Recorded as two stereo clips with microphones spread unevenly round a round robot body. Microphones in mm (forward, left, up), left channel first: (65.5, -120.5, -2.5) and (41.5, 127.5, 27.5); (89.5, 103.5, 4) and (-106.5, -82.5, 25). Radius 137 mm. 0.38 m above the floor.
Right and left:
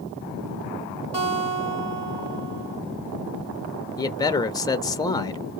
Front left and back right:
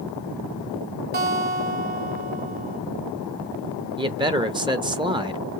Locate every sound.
1.1 s a guitar: 170° left, 2.0 m
4.0 s a man speaking: 80° right, 0.8 m